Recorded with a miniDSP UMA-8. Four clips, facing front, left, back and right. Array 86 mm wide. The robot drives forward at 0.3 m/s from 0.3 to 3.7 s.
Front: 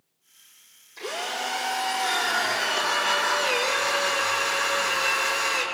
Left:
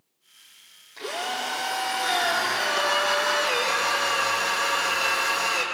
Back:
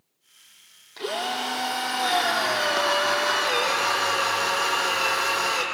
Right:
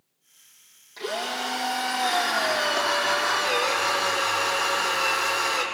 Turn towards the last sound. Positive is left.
turn(degrees=-175)